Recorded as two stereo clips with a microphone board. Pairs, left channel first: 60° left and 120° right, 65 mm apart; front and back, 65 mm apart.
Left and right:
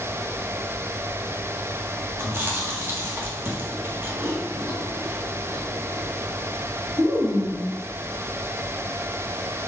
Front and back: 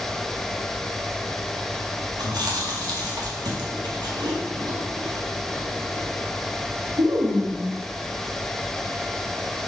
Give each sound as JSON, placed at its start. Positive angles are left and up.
{"t": 2.2, "sound": "chewing", "azimuth_deg": -175, "distance_m": 1.6}